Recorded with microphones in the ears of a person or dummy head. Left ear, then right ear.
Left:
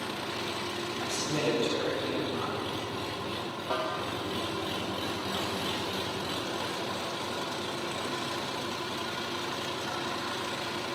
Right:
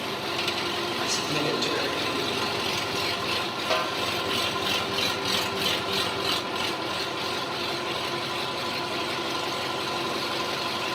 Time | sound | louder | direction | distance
0.0 | an engine running | right 6 dB | 60° right (ahead or behind) | 0.9 m
1.0 | a man speaking | right 2 dB | 65° right (ahead or behind) | 8.5 m
3.7 | a snare drum | right 5 dB | 70° right (ahead or behind) | 1.7 m